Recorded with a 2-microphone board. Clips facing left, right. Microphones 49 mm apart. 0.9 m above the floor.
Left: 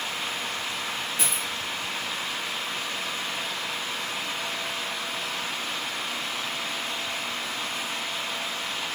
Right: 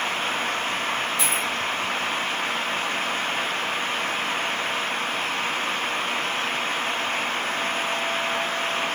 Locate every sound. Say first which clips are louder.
1.2 s a dropped coin: right 5 dB; 20° left (ahead or behind), 7 m